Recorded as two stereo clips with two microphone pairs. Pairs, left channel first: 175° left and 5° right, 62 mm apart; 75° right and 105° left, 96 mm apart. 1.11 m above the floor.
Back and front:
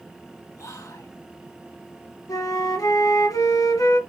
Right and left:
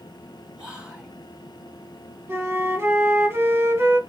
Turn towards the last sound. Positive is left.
turn(degrees=170)